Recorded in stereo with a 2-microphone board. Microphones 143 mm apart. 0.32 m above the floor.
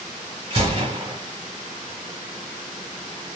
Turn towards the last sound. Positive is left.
turn(degrees=-35)  # may be behind; listen again after turning